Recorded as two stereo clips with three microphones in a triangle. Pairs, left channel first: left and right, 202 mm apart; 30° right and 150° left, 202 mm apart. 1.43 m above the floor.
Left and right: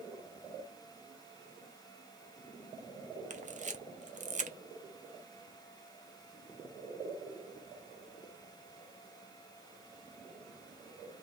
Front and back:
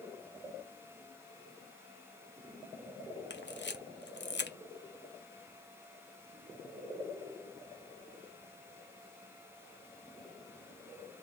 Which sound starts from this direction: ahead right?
A camera shutter, at 3.3 s.